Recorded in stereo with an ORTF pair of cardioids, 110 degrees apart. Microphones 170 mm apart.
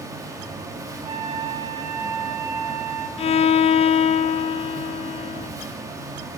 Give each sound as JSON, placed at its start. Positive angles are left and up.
{"t": 0.0, "sound": "a fan", "azimuth_deg": -20, "distance_m": 3.0}
{"t": 1.0, "sound": "a flute", "azimuth_deg": -25, "distance_m": 4.5}
{"t": 3.2, "sound": "a violin", "azimuth_deg": 35, "distance_m": 0.8}